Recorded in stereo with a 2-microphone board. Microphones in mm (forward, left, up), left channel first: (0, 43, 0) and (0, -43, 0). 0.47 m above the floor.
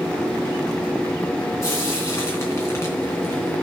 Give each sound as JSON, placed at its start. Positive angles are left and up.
{"t": 1.6, "sound": "frying", "side_deg": 30, "distance_m": 3.0}